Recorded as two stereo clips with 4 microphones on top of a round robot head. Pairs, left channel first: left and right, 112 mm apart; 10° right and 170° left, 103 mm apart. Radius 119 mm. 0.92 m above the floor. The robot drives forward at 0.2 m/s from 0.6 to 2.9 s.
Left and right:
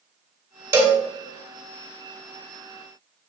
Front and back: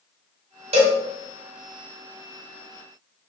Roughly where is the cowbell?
Behind right.